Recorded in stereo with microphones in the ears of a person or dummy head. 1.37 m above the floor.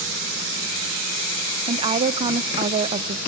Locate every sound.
1.7 s a woman speaking: 25° right (ahead or behind), 0.6 m